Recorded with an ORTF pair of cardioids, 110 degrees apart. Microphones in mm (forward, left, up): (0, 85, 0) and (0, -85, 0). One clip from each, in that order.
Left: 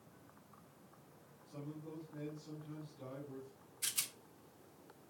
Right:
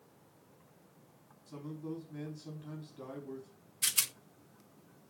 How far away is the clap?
No clap in this recording.